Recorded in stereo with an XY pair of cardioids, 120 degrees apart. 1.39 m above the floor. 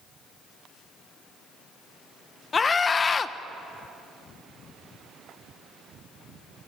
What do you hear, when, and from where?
2.5 s a scream: 30° left, 1.2 m